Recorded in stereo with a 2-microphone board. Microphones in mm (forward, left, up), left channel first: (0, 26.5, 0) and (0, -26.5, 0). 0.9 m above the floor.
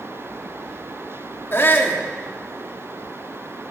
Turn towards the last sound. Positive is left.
turn(degrees=45)  # may be behind; listen again after turning